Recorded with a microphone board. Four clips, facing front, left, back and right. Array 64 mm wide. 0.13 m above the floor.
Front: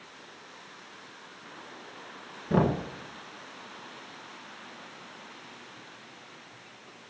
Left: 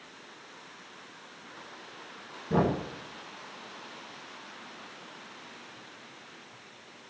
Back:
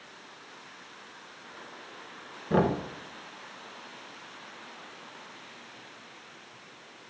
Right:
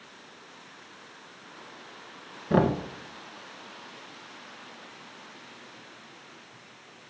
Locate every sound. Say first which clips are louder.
2.5 s knocking: right 3 dB, even; 100° right, 1.5 m